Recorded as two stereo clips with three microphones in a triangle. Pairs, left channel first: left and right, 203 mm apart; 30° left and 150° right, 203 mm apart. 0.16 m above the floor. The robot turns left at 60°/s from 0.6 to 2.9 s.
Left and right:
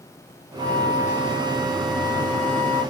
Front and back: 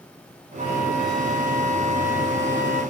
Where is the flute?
150° left, 2.5 m; by 2.8 s 15° left, 2.5 m.